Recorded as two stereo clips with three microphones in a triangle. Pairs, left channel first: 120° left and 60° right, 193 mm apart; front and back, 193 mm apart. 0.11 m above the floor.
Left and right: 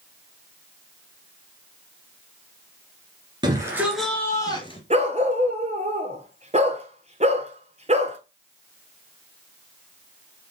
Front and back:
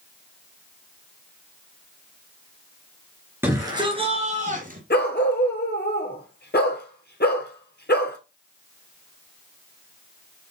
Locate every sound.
3.4 s a shout: 110° right, 1.8 m; by 4.8 s 165° left, 2 m
4.9 s a dog barking: 10° right, 1.1 m